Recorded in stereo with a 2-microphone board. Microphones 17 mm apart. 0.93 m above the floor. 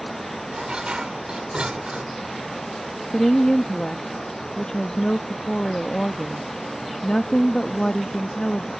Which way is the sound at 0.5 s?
70° right (ahead or behind).